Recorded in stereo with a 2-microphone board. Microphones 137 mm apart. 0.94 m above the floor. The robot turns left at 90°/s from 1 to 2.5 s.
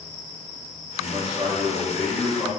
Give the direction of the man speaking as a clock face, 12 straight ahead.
2 o'clock.